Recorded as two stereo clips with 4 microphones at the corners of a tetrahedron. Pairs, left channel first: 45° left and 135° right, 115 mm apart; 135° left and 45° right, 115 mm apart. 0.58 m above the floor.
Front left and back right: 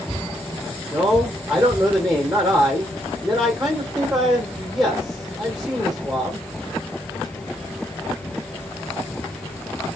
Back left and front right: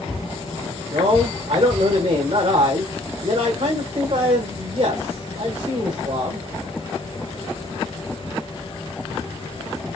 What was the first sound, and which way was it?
A man speaking, 45° right.